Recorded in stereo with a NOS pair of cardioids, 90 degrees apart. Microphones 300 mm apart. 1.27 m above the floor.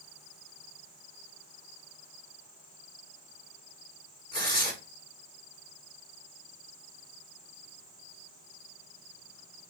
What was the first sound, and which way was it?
Tearing paper, 15° left.